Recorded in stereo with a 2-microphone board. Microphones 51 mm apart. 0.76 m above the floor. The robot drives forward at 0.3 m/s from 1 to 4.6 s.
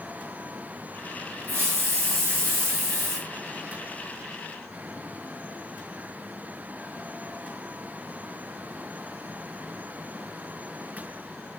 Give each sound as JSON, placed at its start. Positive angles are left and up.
{"t": 1.5, "sound": "a hiss", "side_deg": -45, "distance_m": 2.5}